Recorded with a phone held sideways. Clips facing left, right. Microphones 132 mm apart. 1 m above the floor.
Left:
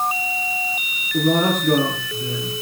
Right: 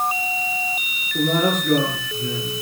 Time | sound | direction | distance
1.1 | a man speaking | 65° left (ahead or behind) | 9 m